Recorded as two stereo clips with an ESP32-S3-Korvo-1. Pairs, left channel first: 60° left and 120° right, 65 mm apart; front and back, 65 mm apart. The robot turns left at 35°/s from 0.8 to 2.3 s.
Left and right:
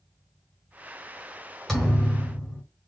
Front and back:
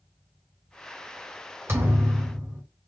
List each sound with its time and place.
1.7 s a thud: 145° left, 1.9 m; by 2.6 s 125° left, 1.9 m